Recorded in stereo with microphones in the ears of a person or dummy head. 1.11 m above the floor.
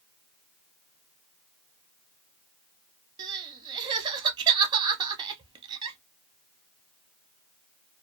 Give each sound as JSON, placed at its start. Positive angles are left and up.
{"t": 3.2, "sound": "crying", "side_deg": -25, "distance_m": 0.7}